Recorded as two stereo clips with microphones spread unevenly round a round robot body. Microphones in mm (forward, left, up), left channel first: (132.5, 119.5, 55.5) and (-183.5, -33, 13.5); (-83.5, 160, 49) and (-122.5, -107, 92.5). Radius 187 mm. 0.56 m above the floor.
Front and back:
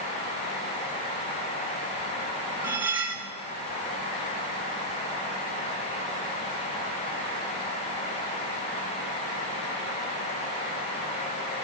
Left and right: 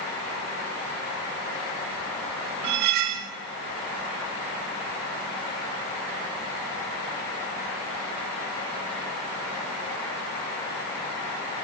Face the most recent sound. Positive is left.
turn(degrees=-70)